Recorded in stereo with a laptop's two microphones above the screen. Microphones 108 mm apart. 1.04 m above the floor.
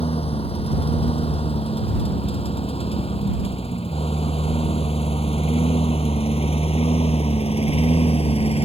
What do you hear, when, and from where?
0.0 s a lawn mower: 70° left (ahead or behind); by 8.7 s 75° left (ahead or behind)